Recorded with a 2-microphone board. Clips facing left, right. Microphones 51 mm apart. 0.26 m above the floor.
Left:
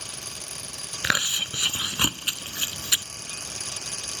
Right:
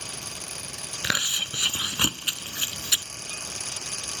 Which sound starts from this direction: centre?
Chewing, at 1.0 s.